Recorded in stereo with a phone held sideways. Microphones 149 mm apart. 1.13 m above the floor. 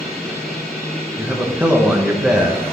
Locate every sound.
0.0 s a machine running: centre (ahead or behind), 3.5 m
1.2 s a man speaking: 5° right (ahead or behind), 1.2 m